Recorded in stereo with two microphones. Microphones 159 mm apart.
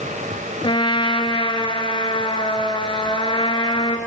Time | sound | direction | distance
0.6 | a trumpet | 30° left (ahead or behind) | 1.2 m